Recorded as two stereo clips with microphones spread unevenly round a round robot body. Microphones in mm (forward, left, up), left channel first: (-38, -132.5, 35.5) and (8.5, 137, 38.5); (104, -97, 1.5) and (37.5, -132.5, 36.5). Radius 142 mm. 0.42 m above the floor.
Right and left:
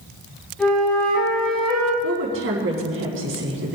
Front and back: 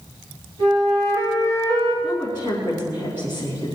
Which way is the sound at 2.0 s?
125° left.